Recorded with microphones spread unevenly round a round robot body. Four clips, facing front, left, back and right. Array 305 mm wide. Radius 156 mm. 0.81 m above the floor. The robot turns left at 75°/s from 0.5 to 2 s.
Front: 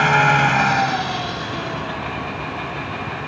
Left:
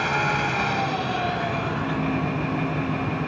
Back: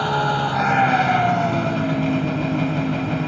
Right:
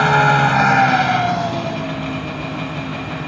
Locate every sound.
0.0 s an engine running: 70° right; by 3.3 s 175° left